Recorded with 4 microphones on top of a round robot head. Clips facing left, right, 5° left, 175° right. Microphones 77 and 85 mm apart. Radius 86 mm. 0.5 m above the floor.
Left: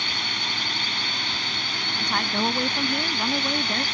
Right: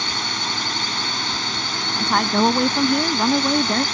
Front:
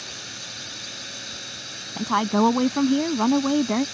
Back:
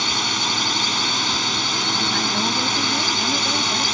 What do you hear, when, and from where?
0.0 s a drone: 160° right
2.0 s a woman speaking: 35° right